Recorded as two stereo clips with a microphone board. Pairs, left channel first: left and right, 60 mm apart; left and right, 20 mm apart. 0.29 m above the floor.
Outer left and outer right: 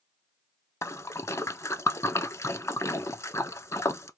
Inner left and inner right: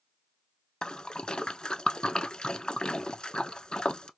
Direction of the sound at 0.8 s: 55° left (ahead or behind).